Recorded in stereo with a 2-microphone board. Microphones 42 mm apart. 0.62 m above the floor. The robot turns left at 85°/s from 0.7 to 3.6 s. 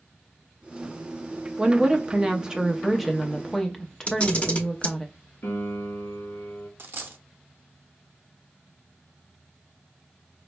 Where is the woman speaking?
15° right (ahead or behind), 0.5 m; by 5.1 s 15° left (ahead or behind), 0.5 m.